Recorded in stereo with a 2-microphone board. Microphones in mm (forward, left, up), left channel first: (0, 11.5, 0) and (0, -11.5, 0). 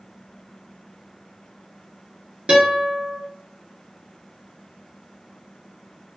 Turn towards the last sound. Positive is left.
turn(degrees=-50)  # may be behind; listen again after turning